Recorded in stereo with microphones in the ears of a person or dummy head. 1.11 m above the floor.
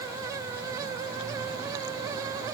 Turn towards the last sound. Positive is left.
No sound to turn to.